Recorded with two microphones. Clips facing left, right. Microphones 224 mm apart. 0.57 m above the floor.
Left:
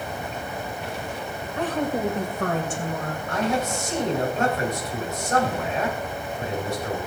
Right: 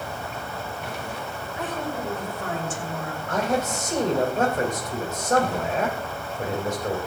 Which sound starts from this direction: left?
A woman speaking, at 1.6 s.